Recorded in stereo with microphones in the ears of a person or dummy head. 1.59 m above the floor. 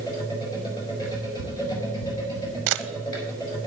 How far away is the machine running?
About 5 m.